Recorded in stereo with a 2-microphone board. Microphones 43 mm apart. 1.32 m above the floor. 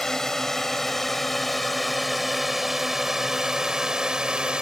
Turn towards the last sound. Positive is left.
turn(degrees=-20)  # may be behind; listen again after turning